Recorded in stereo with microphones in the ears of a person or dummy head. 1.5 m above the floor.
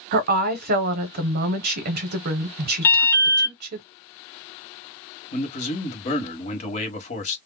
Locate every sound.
0.1 s a woman speaking: 55° right (ahead or behind), 0.7 m
2.8 s an alarm: 15° left (ahead or behind), 1.0 m
5.3 s a man speaking: 40° left (ahead or behind), 1.1 m